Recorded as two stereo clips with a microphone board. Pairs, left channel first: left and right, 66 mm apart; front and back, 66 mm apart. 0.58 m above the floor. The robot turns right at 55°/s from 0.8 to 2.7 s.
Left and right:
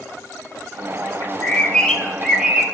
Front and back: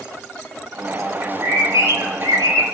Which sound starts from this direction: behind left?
A bird, at 1.2 s.